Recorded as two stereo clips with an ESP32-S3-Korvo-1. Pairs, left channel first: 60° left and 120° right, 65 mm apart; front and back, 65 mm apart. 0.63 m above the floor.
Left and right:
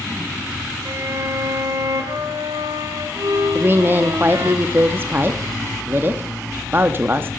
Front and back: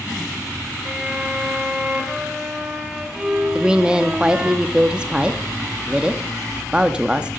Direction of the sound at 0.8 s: 105° right.